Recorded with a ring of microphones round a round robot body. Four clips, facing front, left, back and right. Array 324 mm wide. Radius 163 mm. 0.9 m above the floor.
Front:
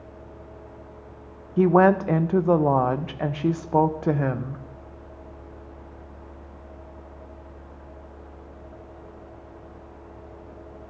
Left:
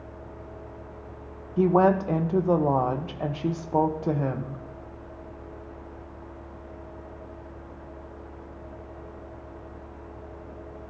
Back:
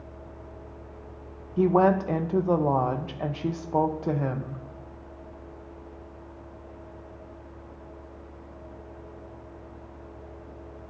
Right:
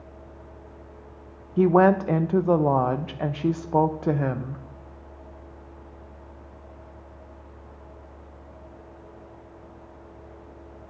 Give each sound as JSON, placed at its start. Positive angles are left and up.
{"t": 1.6, "sound": "a woman speaking", "azimuth_deg": -30, "distance_m": 0.6}